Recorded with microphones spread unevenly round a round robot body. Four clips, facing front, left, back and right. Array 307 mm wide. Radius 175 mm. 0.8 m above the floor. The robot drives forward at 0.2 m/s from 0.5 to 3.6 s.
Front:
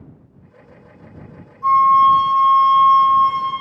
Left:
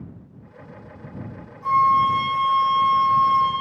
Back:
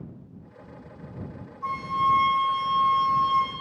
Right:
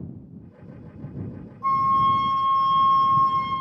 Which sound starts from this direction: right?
A flute, at 1.6 s.